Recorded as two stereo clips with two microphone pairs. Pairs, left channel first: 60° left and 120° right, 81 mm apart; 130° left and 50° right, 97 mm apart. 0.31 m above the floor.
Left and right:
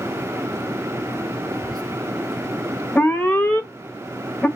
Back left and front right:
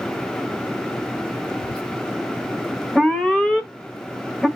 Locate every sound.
1.6 s whispering: 145° left, 3.5 m
3.0 s an alarm: 60° left, 1.1 m